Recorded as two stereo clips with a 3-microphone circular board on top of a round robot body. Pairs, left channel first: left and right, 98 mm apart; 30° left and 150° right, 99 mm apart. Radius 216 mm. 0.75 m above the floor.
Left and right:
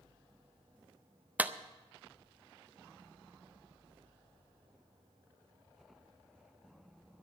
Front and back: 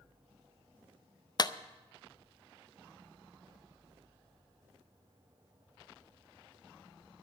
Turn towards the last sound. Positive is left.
turn(degrees=-20)